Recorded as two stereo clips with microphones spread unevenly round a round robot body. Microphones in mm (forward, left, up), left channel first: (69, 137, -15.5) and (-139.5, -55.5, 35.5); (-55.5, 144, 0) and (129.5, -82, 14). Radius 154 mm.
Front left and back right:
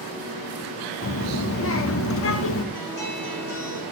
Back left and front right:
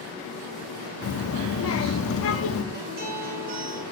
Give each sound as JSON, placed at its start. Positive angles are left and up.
{"t": 1.0, "sound": "a child speaking", "azimuth_deg": 85, "distance_m": 0.8}
{"t": 2.7, "sound": "a guitar", "azimuth_deg": 5, "distance_m": 4.5}